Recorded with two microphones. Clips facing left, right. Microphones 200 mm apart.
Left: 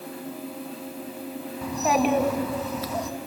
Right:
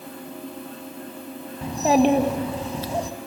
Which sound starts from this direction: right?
A child speaking, at 1.6 s.